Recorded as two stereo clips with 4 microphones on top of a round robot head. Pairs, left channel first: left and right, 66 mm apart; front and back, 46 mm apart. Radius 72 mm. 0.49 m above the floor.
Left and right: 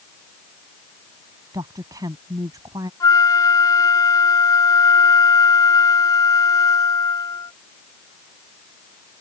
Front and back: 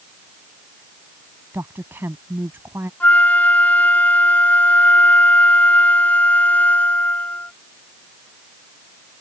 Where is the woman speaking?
130° right.